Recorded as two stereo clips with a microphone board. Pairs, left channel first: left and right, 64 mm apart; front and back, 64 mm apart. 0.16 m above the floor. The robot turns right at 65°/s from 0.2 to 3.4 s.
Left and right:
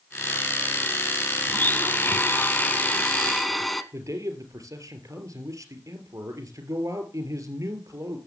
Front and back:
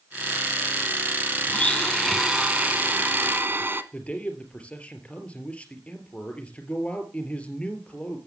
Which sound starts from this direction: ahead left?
A blender, at 1.5 s.